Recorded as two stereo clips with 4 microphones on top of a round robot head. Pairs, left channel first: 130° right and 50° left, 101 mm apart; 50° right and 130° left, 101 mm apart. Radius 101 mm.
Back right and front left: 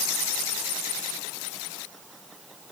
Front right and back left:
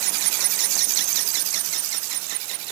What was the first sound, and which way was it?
Only background noise.